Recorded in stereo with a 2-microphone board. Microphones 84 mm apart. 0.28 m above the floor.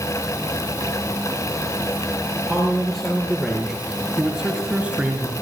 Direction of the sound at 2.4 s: 10° left (ahead or behind).